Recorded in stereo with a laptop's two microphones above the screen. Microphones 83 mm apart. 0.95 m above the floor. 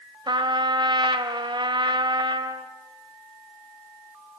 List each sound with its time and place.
0.3 s a trumpet: 75° right (ahead or behind), 1.7 m